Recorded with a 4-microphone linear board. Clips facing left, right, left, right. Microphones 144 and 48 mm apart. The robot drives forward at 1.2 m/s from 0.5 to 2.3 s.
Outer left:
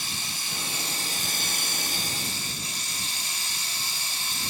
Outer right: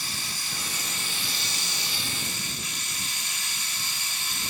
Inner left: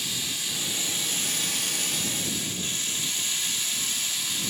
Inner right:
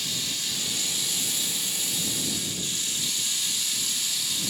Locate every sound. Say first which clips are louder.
0.0 s running water: even, even; 25° left (ahead or behind), 1.5 m; by 4.5 s 35° left (ahead or behind), 1.1 m